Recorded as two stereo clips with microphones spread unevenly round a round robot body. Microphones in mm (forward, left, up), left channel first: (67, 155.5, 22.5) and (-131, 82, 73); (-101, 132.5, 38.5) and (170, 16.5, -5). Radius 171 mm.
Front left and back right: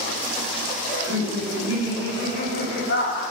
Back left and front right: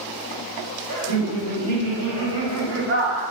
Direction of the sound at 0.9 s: 45° right.